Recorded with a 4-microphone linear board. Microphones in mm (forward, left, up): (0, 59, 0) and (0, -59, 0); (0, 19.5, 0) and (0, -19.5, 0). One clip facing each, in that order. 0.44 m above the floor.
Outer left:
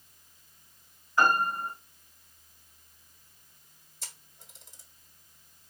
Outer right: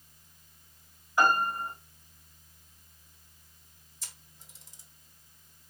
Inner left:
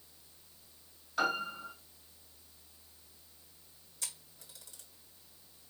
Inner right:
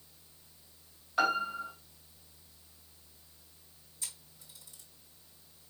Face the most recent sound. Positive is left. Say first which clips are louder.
# outer left 3 dB, inner left 1 dB
turn(degrees=60)  # may be behind; listen again after turning